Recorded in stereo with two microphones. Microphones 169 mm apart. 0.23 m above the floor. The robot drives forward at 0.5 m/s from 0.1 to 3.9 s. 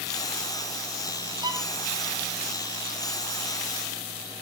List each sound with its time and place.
1.4 s a violin: 20° right (ahead or behind), 1.0 m